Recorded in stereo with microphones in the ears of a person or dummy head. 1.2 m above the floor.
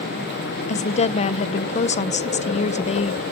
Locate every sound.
0.7 s a woman speaking: 35° left (ahead or behind), 0.7 m